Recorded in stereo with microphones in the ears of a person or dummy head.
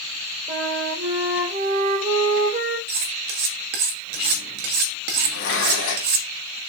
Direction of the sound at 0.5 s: 30° right (ahead or behind).